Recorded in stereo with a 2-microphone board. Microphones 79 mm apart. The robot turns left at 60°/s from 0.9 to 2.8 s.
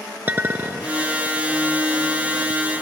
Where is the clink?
25° right (ahead or behind), 1.0 m.